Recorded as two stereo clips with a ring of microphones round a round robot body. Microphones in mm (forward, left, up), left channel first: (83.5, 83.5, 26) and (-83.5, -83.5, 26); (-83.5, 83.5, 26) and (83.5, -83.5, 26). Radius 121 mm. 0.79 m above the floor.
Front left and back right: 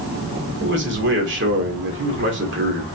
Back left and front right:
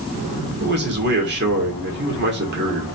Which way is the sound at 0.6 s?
90° right.